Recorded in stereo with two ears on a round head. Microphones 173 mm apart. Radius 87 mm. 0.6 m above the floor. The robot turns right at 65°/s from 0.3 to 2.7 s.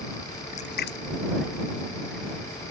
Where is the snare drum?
I don't hear a snare drum.